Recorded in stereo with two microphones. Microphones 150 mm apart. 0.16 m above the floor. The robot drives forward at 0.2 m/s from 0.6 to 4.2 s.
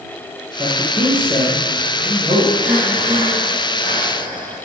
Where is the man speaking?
10° right (ahead or behind), 2.5 m.